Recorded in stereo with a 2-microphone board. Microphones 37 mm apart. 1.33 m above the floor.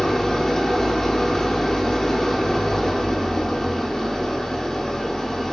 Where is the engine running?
15° left (ahead or behind), 2 m.